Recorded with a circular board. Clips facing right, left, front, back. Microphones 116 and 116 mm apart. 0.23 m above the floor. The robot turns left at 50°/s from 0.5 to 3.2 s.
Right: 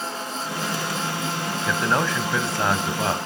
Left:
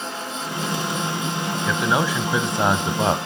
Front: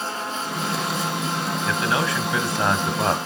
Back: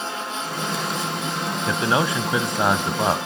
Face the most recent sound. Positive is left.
turn(degrees=100)